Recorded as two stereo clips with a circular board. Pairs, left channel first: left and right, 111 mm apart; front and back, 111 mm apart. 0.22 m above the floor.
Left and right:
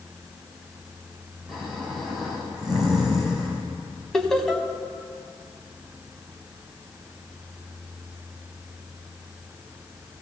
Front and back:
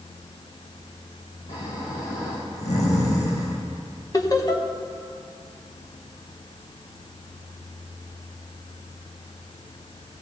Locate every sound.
1.5 s snoring: 5° right, 3.5 m
4.1 s laughter: 5° left, 1.1 m